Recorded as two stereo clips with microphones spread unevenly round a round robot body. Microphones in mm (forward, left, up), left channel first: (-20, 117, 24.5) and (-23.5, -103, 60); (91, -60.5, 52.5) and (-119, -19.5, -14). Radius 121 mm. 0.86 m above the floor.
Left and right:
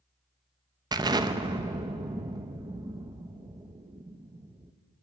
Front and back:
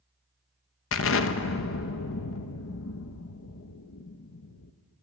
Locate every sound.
0.9 s an explosion: 15° right, 1.2 m